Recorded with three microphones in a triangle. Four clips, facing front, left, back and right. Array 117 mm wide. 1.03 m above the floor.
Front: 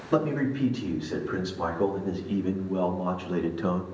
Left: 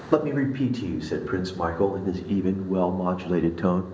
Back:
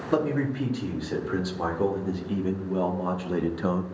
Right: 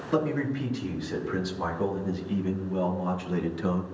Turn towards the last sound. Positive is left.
turn(degrees=95)